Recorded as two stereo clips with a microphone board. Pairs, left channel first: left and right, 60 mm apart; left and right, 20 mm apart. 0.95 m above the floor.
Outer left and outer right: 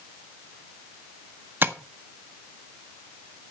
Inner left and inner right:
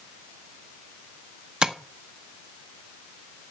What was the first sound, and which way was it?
Tapping, 35° right (ahead or behind).